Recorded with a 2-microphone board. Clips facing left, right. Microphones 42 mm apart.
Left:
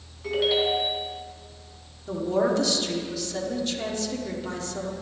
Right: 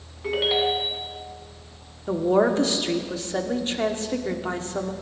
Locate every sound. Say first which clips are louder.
0.2 s a ringtone: right 1 dB; 25° right (ahead or behind), 2 m
2.1 s a woman speaking: right 4 dB; 35° right (ahead or behind), 1.3 m